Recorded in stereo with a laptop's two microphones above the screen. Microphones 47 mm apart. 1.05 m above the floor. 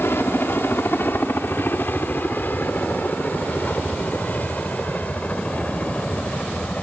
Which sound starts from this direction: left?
A helicopter, at 0.0 s.